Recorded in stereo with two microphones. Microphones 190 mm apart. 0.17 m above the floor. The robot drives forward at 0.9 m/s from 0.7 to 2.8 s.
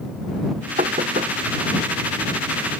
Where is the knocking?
40° right (ahead or behind); by 1.3 s 45° right (ahead or behind).